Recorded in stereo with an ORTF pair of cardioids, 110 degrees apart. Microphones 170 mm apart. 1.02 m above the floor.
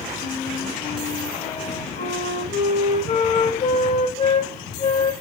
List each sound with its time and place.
0.2 s a flute: 40° left, 1.6 m